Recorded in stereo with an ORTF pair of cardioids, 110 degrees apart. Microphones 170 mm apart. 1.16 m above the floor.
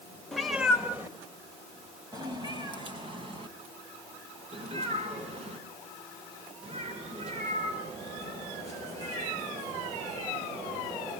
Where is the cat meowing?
Straight ahead, 1.9 m; by 11.1 s 45° right, 11.5 m.